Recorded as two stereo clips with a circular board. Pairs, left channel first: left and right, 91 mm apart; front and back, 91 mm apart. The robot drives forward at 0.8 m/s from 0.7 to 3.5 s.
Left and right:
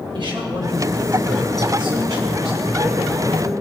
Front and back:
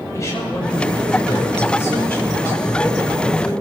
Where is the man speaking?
60° right, 7.5 m; by 3.5 s 75° right, 6.5 m.